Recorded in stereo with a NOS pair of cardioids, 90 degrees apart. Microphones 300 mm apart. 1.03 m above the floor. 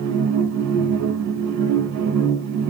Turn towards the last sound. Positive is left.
turn(degrees=-65)